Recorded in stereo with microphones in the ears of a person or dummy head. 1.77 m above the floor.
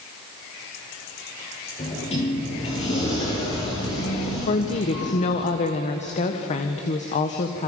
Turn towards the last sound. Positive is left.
turn(degrees=35)  # may be behind; listen again after turning